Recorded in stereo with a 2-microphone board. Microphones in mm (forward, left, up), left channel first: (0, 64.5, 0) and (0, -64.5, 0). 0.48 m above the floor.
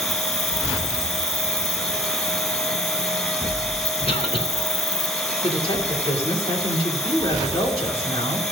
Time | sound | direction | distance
0.0 | an insect | 50° left (ahead or behind) | 0.8 m
4.1 | a cough | 50° left (ahead or behind) | 2.5 m
5.4 | a woman speaking | 45° left (ahead or behind) | 2 m